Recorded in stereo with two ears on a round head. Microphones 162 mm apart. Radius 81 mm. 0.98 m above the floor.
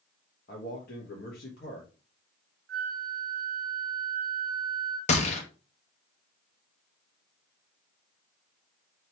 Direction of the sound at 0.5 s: 60° left (ahead or behind).